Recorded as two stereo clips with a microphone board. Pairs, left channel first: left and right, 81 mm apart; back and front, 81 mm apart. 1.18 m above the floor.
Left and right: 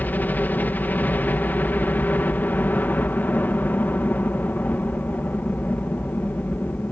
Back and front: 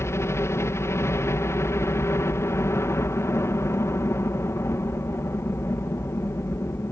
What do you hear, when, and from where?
0.0 s a helicopter: 150° left